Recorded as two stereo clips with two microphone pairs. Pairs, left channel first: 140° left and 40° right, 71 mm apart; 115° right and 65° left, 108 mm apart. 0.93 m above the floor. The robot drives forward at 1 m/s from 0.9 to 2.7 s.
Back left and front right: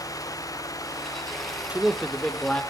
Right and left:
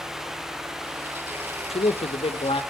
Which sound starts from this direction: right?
A man speaking, at 1.7 s.